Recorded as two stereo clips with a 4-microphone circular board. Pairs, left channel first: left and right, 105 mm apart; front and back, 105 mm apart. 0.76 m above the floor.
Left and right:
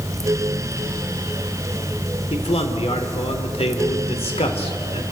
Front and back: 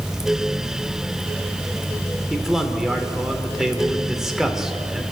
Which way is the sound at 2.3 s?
95° left.